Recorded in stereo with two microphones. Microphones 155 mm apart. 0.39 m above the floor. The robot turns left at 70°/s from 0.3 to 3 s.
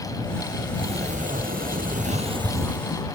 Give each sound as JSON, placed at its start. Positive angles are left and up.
{"t": 0.7, "sound": "a sliding door", "azimuth_deg": -30}